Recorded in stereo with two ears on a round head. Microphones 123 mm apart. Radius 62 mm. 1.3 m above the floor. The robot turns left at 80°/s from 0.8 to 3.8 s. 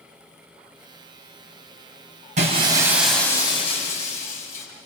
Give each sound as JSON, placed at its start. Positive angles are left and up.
{"t": 2.4, "sound": "breaking glass", "azimuth_deg": -120, "distance_m": 5.5}